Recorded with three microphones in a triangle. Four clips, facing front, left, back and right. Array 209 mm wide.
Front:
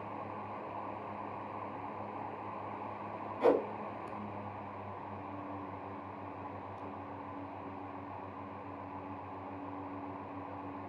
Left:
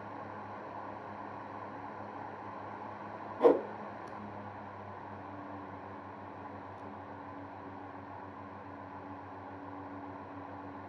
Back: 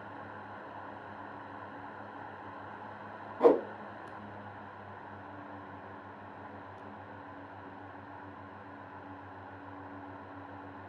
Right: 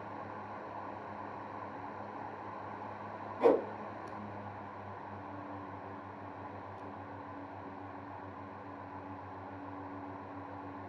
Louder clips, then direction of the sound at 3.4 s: Left 2 dB, back 4 dB; 160° left.